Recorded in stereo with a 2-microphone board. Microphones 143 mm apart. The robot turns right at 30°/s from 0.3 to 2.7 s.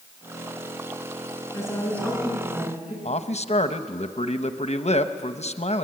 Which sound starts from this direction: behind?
A woman speaking, at 1.5 s.